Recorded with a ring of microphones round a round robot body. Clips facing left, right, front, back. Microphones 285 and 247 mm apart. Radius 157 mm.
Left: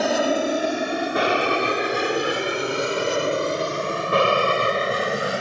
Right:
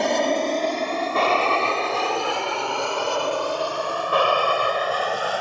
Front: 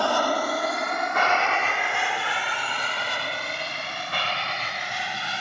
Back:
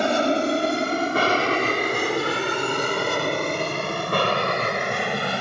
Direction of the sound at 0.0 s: 170° left.